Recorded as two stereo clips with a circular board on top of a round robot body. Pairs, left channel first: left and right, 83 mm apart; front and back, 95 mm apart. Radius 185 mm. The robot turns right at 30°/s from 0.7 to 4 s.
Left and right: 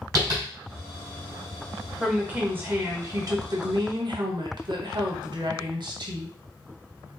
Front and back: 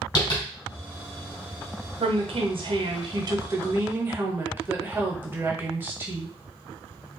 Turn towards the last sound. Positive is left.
turn(degrees=-110)